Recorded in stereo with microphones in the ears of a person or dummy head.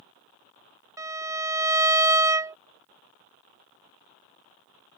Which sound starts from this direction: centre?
A violin, at 1.0 s.